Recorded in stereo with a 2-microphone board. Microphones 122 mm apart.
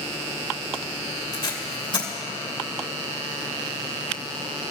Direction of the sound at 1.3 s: 40° left (ahead or behind).